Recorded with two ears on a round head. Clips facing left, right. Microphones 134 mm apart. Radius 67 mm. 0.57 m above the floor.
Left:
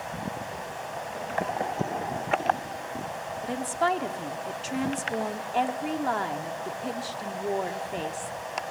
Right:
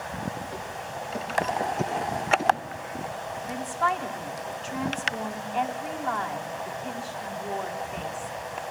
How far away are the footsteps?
About 9.5 m.